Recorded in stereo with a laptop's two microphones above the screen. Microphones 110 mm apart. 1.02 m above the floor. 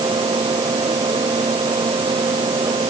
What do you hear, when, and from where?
0.0 s a fan: 45° right (ahead or behind)